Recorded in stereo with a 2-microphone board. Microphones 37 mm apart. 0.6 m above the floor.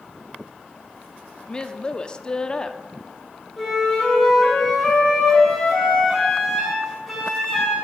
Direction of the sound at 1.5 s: 25° left (ahead or behind).